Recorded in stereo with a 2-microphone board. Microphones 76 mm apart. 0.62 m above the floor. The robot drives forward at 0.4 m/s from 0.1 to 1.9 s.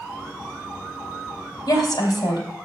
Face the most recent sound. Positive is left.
turn(degrees=70)  # may be behind; listen again after turning